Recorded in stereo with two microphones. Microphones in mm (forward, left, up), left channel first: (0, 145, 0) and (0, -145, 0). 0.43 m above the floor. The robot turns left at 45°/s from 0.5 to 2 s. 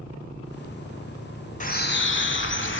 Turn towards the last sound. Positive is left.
turn(degrees=40)  # may be behind; listen again after turning